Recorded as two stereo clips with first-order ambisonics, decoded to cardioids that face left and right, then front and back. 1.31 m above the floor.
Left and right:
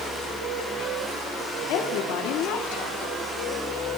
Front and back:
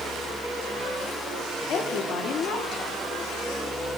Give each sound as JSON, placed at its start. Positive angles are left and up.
{"t": 1.7, "sound": "a woman speaking", "azimuth_deg": 55, "distance_m": 3.5}